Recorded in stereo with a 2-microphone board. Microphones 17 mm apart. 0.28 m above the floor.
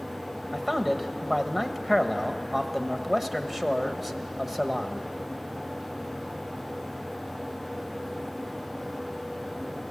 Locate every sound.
0.5 s a man speaking: 15° right (ahead or behind), 1.0 m